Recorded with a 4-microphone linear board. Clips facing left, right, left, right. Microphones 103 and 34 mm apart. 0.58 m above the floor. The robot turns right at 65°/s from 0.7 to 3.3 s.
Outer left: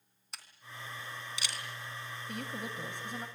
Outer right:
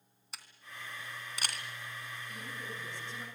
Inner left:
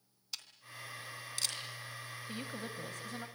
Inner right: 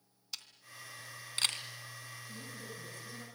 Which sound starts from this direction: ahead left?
A woman speaking, at 2.3 s.